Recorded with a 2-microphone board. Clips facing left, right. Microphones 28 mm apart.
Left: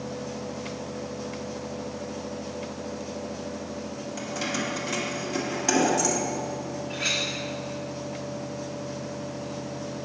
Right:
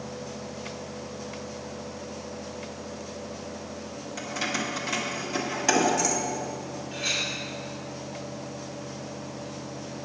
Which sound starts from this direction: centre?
Keys jangling, at 4.2 s.